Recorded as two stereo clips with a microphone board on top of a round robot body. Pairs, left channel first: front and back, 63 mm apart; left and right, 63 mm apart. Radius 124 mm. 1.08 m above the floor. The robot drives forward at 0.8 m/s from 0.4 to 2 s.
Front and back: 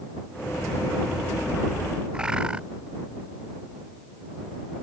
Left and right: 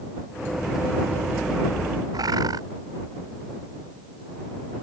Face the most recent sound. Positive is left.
turn(degrees=-105)